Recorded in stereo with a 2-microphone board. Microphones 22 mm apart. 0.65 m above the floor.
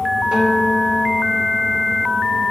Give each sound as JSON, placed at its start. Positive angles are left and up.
{"t": 0.3, "sound": "a guitar", "side_deg": -40, "distance_m": 2.5}